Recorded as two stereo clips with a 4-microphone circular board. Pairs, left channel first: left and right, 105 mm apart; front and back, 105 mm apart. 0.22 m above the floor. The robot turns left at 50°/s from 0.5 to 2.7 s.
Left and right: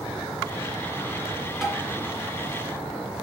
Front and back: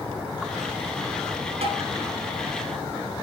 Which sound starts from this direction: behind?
Tapping, at 1.6 s.